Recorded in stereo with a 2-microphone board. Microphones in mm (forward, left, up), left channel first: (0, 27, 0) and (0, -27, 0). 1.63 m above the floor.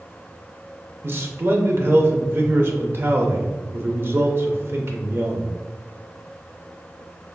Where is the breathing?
No breathing in this recording.